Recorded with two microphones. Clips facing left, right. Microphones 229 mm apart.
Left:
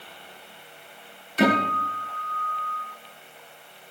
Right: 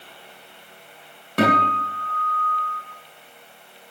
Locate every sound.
1.4 s a guitar: 70° right (ahead or behind), 6.5 m